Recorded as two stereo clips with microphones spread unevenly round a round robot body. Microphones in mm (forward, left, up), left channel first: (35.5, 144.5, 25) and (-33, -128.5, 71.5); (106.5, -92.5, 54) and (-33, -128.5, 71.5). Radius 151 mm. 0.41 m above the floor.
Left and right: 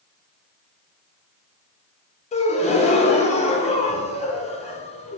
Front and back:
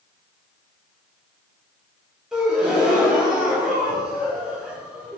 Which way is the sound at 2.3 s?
100° left.